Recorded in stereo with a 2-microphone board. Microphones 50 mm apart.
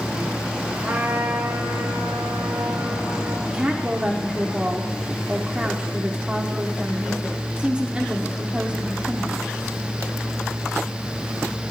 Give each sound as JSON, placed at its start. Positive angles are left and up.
{"t": 0.8, "sound": "a trumpet", "side_deg": -50, "distance_m": 3.0}
{"t": 3.5, "sound": "a woman speaking", "side_deg": -25, "distance_m": 0.8}